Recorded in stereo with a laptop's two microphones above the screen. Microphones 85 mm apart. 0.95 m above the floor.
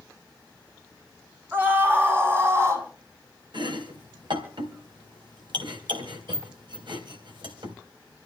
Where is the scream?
25° right (ahead or behind), 8 m; by 2.9 s 30° right (ahead or behind), 7.5 m.